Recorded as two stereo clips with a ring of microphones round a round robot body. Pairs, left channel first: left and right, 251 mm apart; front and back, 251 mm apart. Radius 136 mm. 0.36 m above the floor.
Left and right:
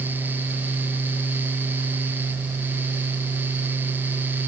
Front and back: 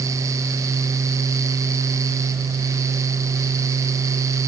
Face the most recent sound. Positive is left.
No sound to turn to.